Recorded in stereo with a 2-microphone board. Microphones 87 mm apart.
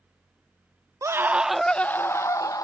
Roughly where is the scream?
Right.